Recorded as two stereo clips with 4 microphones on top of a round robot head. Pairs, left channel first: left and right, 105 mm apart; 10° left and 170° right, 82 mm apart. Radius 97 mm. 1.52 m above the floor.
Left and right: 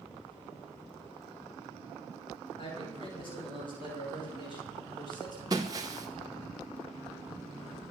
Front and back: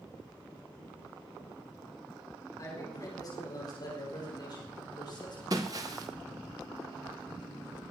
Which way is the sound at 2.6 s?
55° left.